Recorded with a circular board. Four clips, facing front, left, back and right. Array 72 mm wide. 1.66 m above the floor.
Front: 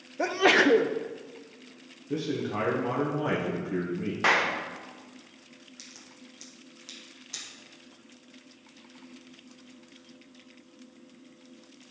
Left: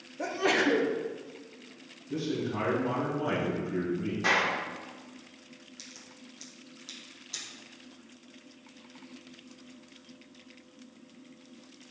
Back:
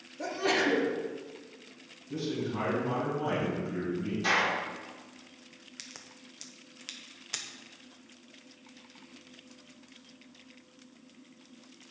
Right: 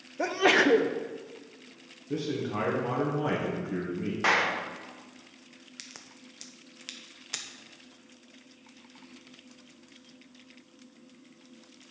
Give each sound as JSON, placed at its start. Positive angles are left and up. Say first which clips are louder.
{"t": 0.2, "sound": "a sneeze", "louder": "right 4 dB, front 7 dB", "azimuth_deg": -30, "distance_m": 0.7}
{"t": 2.1, "sound": "a man speaking", "louder": "right 1 dB, front 3 dB", "azimuth_deg": -40, "distance_m": 1.8}
{"t": 4.2, "sound": "a clap", "louder": "right 2 dB, front 4 dB", "azimuth_deg": -30, "distance_m": 1.5}
{"t": 5.8, "sound": "a crack", "louder": "even, front 1 dB", "azimuth_deg": -125, "distance_m": 0.8}